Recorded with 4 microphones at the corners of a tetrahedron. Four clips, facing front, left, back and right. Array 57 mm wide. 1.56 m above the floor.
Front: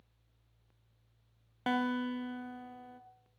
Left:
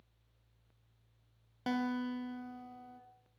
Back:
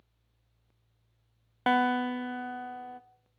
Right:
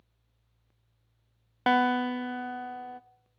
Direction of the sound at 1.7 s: 120° right.